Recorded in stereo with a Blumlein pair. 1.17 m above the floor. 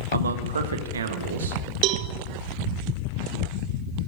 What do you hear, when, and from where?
0.1 s a man speaking: 70° right, 1.3 m; by 1.6 s 65° right, 2 m
1.8 s a cowbell: 40° right, 1.0 m